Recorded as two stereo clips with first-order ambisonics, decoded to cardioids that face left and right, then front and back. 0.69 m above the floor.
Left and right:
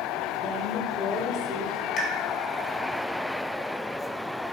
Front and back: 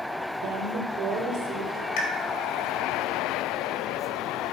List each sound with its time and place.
0.4 s a woman speaking: 160° left, 2 m; by 1.9 s 130° left, 2.5 m
2.0 s a pop: 30° left, 1.9 m